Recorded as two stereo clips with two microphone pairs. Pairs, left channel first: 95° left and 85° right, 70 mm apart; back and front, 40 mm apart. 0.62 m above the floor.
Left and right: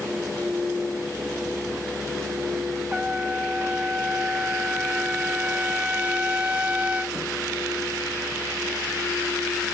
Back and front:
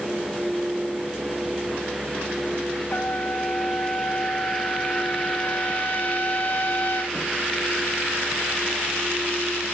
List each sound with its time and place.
2.9 s a trumpet: 155° right